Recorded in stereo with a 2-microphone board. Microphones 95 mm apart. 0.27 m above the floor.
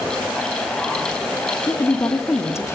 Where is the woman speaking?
30° left (ahead or behind), 1.8 m.